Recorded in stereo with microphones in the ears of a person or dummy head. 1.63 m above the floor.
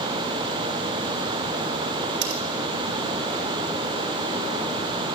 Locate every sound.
2.2 s cutlery clinking: 75° right (ahead or behind), 3.5 m